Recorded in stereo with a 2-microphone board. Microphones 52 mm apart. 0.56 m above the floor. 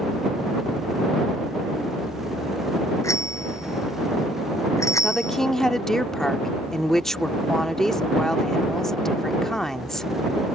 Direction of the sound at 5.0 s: 10° left (ahead or behind).